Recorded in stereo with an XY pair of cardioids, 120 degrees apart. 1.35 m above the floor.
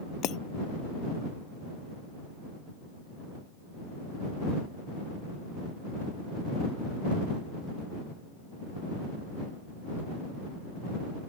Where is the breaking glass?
70° left.